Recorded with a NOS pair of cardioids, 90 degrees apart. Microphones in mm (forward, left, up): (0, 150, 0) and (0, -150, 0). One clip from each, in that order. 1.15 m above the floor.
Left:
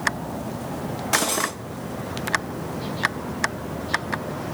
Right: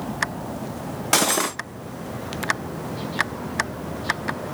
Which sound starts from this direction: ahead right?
Cutlery clinking, at 1.1 s.